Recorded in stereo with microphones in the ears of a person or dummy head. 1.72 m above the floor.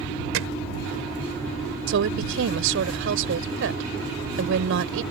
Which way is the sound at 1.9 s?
80° right.